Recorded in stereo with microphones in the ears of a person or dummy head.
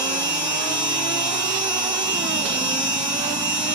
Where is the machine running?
20° right (ahead or behind), 4 m.